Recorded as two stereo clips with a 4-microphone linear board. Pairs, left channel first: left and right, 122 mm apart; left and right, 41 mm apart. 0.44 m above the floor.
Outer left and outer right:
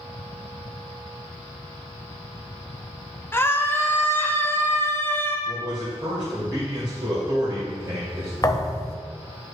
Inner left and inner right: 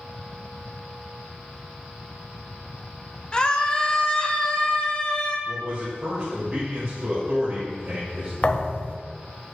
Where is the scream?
20° left (ahead or behind), 1.2 m.